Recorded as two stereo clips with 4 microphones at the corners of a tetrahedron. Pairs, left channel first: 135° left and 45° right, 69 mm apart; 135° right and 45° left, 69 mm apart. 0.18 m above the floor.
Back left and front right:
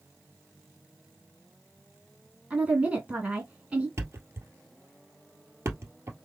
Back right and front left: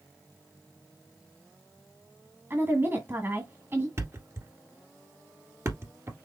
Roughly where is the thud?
Ahead.